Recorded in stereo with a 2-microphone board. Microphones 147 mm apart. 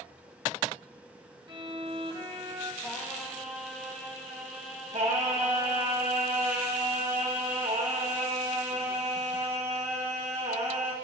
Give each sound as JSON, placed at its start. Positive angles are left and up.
{"t": 1.5, "sound": "a violin", "side_deg": -35, "distance_m": 1.1}
{"t": 2.8, "sound": "singing", "side_deg": 0, "distance_m": 3.0}
{"t": 4.9, "sound": "singing", "side_deg": -65, "distance_m": 3.0}